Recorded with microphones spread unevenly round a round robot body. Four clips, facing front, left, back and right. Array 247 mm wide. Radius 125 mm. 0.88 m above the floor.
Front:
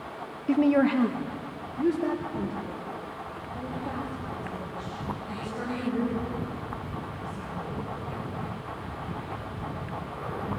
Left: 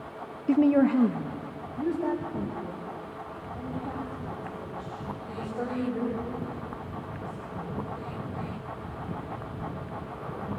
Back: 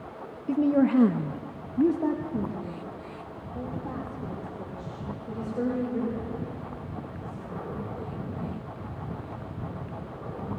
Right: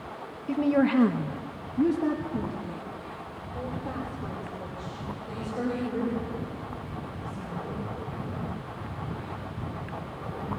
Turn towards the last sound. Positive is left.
turn(degrees=-135)